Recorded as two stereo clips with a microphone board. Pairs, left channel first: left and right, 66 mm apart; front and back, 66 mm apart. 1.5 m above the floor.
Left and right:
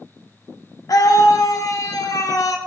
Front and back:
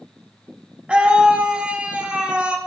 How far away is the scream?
About 0.7 m.